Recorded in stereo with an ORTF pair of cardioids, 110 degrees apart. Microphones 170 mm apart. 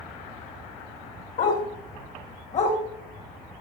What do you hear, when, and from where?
1.4 s a dog barking: 55° left, 4 m; by 2.8 s 45° left, 4 m